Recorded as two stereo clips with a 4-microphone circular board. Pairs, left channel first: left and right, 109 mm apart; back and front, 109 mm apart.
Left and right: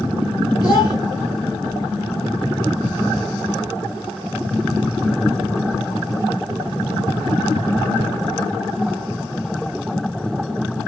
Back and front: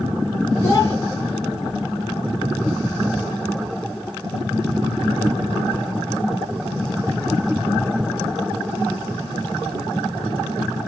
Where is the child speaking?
115° left, 1.7 m.